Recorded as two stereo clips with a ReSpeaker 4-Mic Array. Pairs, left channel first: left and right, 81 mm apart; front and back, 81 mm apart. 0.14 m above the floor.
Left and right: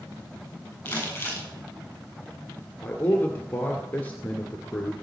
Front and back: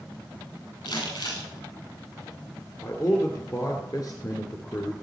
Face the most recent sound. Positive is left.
turn(degrees=30)